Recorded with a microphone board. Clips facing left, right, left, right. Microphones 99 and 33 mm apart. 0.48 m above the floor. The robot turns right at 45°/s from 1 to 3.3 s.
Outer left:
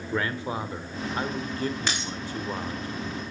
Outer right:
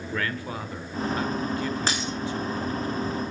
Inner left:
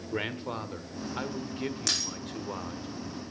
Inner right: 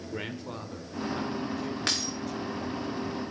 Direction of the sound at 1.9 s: 35° right (ahead or behind).